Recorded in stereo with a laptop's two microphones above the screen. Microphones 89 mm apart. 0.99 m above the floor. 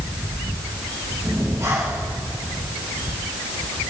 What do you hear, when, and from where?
1.2 s breathing: 40° right (ahead or behind), 6 m